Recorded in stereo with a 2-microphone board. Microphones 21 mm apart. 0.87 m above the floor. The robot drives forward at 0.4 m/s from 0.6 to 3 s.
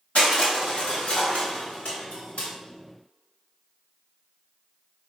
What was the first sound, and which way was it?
Crushing, 65° left (ahead or behind).